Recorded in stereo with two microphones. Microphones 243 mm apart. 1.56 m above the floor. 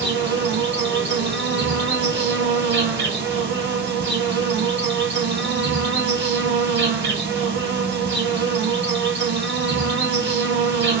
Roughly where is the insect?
Right.